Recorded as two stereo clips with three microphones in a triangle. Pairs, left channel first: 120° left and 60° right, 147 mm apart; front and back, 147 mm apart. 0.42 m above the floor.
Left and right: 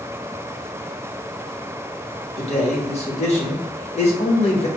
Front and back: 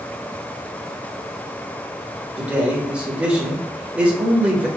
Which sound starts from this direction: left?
A man speaking, at 2.4 s.